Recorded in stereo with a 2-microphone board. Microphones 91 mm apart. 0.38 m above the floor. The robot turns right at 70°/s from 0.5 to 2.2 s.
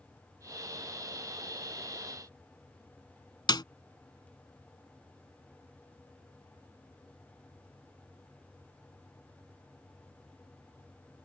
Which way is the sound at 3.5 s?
55° left (ahead or behind).